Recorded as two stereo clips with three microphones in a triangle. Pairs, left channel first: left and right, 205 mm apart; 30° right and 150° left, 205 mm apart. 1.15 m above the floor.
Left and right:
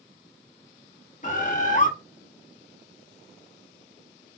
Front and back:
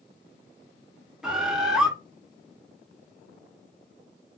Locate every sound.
1.2 s a bird: 65° left, 0.7 m